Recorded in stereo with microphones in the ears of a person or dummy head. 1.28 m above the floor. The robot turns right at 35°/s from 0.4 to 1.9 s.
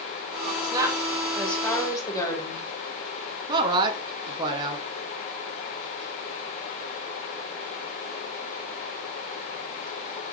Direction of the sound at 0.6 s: 25° right.